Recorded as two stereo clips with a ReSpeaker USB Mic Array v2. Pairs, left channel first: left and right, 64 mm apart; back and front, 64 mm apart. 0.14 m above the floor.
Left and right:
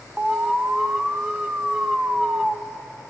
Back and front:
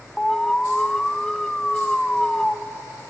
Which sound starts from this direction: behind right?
An alarm, at 0.2 s.